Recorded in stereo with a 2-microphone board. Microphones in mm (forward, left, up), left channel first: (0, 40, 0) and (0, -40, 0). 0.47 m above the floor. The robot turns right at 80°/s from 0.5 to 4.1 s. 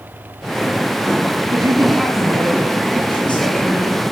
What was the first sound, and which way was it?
A man speaking, 45° right.